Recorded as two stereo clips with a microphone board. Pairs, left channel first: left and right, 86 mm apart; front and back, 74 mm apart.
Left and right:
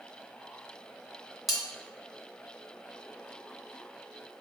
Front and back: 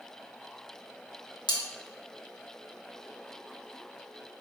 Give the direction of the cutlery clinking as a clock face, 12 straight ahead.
12 o'clock.